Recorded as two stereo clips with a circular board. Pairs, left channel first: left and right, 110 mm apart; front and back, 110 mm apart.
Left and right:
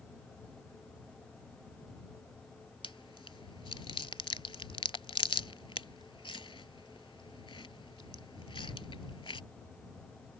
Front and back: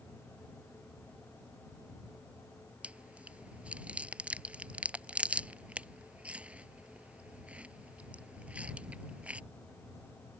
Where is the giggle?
No giggle in this recording.